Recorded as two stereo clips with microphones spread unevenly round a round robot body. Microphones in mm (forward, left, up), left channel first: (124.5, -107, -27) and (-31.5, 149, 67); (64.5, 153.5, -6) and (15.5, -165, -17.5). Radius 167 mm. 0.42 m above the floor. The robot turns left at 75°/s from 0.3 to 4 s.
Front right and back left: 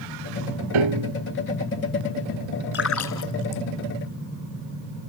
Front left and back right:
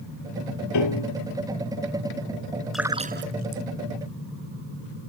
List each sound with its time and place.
0.7 s a piano: 125° left; by 1.1 s 95° left
2.7 s a splash: 10° right; by 3.6 s 75° right